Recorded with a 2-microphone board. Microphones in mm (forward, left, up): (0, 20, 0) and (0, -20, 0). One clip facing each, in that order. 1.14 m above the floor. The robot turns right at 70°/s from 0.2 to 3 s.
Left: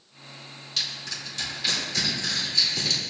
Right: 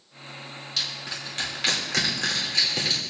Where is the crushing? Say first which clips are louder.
Even; centre (ahead or behind), 2.5 m; by 3.0 s 20° right (ahead or behind), 2.5 m.